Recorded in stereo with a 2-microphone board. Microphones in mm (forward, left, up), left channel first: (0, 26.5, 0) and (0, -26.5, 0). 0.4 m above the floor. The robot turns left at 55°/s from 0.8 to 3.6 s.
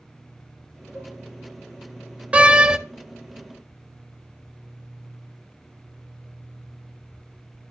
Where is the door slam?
25° right (ahead or behind), 0.6 m; by 2.8 s 10° right (ahead or behind), 0.6 m.